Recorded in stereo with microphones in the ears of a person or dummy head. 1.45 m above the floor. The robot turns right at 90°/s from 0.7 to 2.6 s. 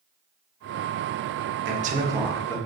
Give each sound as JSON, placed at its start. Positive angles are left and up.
{"t": 1.6, "sound": "a man speaking", "azimuth_deg": -60, "distance_m": 0.9}